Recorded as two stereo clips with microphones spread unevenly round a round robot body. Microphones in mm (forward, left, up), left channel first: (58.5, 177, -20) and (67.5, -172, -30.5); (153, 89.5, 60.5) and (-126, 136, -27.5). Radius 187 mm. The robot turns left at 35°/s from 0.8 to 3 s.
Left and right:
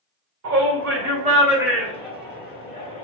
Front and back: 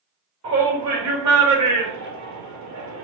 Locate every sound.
0.4 s a shout: 145° right, 2 m; by 3.0 s 140° left, 2 m